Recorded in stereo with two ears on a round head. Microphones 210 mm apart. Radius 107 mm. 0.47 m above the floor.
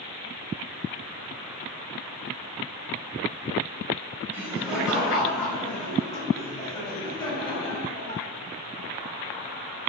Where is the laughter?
10° right (ahead or behind), 2.5 m; by 8.2 s 25° left (ahead or behind), 4 m.